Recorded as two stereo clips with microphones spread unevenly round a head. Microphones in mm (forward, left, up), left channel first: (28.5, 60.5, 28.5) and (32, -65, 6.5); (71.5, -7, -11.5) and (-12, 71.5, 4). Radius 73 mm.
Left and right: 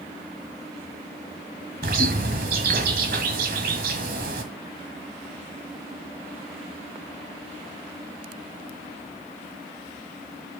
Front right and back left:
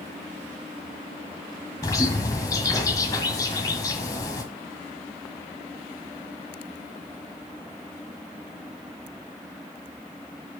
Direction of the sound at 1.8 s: 110° right.